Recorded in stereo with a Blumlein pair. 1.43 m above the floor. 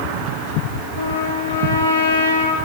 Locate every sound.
1.0 s a trumpet: 60° left, 4.5 m